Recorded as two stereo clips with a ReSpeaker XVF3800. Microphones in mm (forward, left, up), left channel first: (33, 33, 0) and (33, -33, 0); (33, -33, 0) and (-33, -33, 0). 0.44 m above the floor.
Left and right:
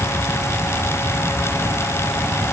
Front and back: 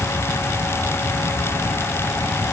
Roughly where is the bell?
No bell in this recording.